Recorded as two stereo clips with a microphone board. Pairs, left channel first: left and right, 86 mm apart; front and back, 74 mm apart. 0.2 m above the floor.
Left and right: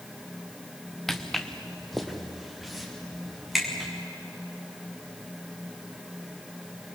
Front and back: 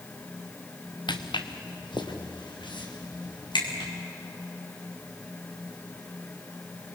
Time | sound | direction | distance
1.1 | footsteps | straight ahead | 1.5 m